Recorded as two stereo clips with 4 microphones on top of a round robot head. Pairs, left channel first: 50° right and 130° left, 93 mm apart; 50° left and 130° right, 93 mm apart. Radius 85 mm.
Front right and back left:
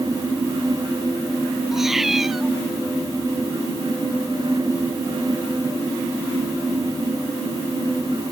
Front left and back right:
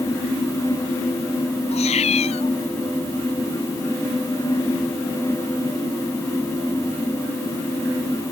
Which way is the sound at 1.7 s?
45° left.